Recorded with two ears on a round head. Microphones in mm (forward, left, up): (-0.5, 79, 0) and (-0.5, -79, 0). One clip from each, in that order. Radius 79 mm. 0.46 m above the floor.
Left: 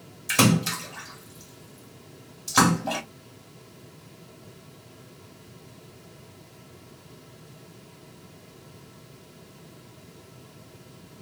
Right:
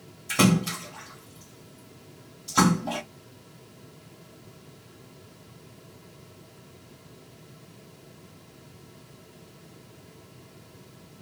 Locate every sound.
0.3 s a splash: 60° left (ahead or behind), 2 m